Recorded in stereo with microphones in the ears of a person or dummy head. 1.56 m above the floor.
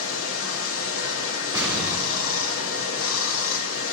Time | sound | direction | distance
0.0 | running water | 80° left | 1.0 m
1.5 | an explosion | 25° right (ahead or behind) | 4.5 m